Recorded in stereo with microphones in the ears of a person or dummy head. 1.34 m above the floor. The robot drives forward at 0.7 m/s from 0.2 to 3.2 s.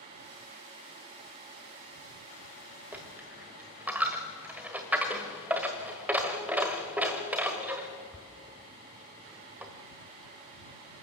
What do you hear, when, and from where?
2.9 s a dropped coin: 10° right (ahead or behind), 1.3 m